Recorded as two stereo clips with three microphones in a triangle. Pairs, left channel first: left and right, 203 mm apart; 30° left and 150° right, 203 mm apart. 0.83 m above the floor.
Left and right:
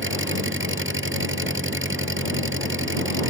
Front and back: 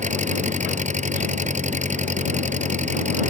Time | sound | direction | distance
0.0 | an engine running | 95° right | ?